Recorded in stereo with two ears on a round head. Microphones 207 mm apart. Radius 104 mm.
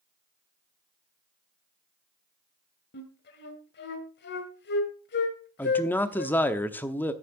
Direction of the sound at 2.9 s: 45° left (ahead or behind).